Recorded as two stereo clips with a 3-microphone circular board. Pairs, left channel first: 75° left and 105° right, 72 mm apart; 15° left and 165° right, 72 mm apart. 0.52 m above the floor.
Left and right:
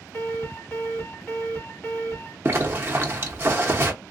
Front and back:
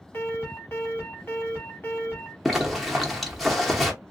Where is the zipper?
75° right, 0.9 m.